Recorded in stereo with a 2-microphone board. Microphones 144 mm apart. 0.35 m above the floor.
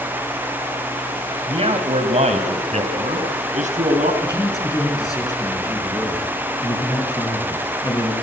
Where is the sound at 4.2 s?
25° left (ahead or behind), 5.5 m.